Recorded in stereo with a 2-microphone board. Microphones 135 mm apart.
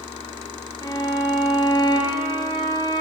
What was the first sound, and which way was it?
A violin, 30° left (ahead or behind).